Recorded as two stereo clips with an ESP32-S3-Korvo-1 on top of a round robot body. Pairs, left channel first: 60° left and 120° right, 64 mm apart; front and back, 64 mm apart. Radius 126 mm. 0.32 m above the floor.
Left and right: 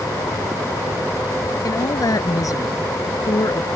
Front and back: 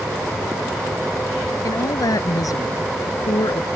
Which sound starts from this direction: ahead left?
A woman speaking, at 1.6 s.